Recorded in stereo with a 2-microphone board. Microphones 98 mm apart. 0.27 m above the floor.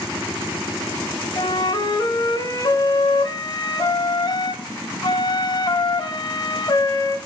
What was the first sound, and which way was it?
A flute, 45° left (ahead or behind).